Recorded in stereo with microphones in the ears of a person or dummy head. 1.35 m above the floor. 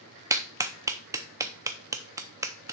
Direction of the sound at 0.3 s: 15° right (ahead or behind).